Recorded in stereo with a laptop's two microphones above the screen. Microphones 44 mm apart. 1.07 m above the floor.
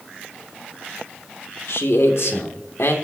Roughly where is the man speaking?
Left.